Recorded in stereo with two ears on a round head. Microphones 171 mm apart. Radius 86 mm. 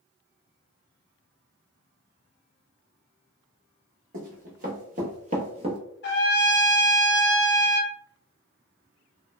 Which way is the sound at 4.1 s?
50° right (ahead or behind).